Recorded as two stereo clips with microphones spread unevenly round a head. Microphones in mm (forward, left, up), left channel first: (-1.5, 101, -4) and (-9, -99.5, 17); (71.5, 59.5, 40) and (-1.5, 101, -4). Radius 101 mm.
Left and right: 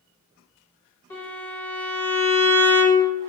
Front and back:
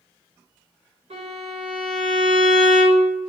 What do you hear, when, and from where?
1.1 s a violin: 165° left, 0.9 m